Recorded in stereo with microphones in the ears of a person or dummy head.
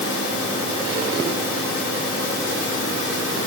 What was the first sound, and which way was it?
Only background noise.